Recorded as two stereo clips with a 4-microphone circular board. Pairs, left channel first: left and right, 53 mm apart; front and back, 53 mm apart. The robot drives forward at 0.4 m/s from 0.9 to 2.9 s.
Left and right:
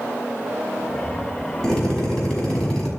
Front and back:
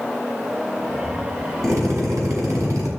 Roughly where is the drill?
Behind.